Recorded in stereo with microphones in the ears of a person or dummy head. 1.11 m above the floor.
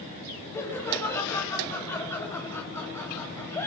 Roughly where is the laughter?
Centre.